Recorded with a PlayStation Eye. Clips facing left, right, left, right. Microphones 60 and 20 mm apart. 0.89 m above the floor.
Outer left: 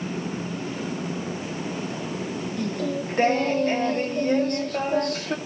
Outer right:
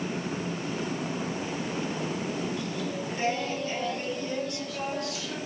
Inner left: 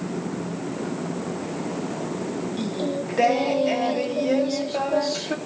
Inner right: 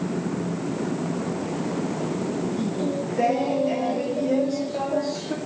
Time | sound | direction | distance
2.6 | singing | 50° left (ahead or behind) | 2 m